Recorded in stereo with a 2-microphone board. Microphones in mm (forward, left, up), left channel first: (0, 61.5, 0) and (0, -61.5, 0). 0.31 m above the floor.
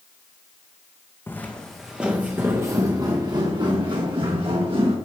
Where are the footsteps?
20° left (ahead or behind), 1.4 m; by 5.0 s 45° right (ahead or behind), 3.5 m.